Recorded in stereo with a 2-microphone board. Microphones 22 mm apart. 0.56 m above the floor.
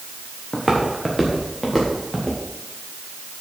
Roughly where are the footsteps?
Centre.